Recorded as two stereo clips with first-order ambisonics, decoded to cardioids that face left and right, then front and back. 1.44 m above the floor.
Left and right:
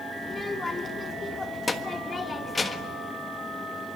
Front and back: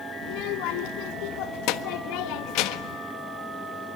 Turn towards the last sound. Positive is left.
turn(degrees=15)